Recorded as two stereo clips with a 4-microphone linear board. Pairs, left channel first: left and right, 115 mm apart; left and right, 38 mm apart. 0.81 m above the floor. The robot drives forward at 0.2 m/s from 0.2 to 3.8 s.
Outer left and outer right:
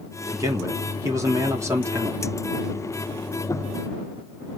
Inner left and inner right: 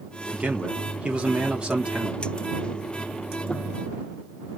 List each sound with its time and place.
0.3 s a man speaking: 30° right (ahead or behind), 1.8 m; by 2.2 s 25° right (ahead or behind), 2 m